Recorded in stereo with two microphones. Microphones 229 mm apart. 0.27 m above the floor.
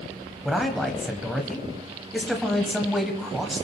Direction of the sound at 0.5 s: Centre (ahead or behind).